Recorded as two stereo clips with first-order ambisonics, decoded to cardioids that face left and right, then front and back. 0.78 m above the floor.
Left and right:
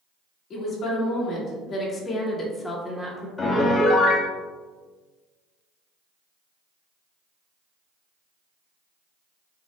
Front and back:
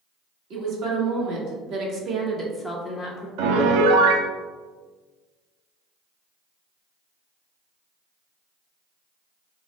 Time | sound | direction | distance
0.5 | a woman speaking | 155° left | 1.5 m
3.4 | a piano | 160° left | 0.5 m